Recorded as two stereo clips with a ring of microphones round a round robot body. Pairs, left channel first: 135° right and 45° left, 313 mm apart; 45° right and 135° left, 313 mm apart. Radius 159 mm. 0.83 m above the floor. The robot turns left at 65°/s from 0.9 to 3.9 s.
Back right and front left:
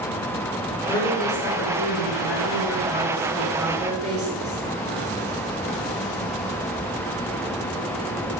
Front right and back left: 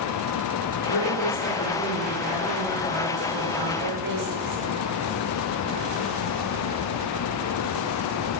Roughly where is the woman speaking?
Ahead right.